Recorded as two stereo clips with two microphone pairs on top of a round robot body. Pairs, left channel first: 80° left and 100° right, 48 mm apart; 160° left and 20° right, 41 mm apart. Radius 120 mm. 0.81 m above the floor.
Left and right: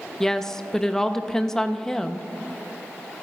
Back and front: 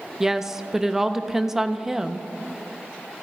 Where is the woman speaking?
10° left, 0.7 m.